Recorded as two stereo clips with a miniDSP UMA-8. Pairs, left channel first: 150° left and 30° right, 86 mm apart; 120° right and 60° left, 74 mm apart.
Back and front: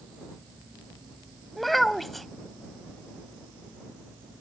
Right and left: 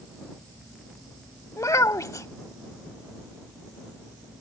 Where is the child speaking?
120° right.